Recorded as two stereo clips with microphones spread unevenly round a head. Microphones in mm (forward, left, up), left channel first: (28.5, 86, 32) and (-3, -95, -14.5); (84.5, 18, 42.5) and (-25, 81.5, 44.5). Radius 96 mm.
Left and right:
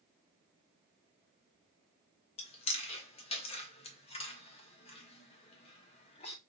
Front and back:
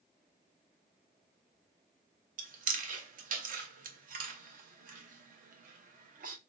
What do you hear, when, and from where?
2.4 s chewing: 145° left, 0.7 m